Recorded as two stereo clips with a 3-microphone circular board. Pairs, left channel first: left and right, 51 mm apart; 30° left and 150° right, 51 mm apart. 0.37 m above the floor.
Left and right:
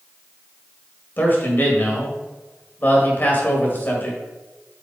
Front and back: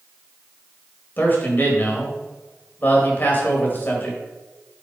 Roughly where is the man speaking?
Ahead left.